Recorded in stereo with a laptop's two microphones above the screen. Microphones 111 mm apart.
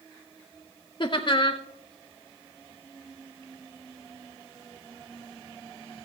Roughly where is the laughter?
Left.